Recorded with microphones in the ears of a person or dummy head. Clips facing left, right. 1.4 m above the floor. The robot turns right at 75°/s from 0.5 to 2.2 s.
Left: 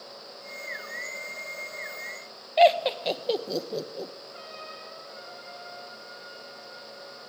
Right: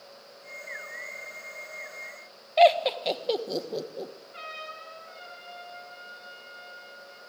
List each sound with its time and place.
2.6 s laughter: 5° left (ahead or behind), 1.2 m
4.3 s a trumpet: 35° right (ahead or behind), 8.5 m